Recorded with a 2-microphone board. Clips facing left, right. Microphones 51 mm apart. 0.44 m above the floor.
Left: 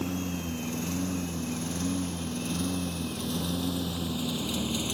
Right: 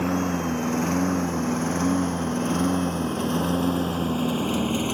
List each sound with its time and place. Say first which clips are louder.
0.0 s a lawn mower: right 8 dB; 50° right (ahead or behind); by 4.9 s 35° right (ahead or behind)